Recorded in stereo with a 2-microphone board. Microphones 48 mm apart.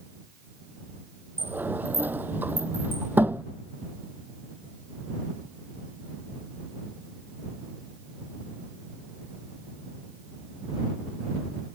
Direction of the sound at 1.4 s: 40° right (ahead or behind).